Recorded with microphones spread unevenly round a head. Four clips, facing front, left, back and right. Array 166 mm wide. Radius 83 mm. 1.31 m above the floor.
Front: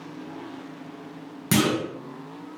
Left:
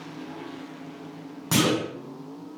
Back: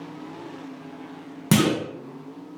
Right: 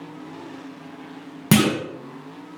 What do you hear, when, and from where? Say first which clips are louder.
1.5 s a clunk: right 5 dB, back 2 dB; 110° right, 0.7 m